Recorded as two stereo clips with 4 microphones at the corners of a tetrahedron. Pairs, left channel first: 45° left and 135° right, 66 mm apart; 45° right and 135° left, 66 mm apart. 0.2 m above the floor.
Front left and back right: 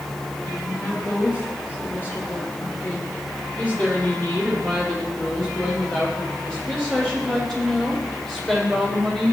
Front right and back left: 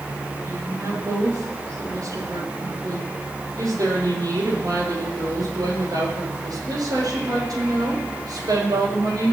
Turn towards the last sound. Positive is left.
turn(degrees=125)